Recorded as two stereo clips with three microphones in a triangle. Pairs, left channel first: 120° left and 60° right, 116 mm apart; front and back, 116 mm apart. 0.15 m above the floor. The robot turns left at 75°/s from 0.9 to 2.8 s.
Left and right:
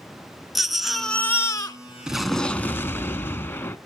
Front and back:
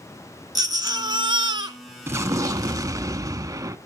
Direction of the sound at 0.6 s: 145° right.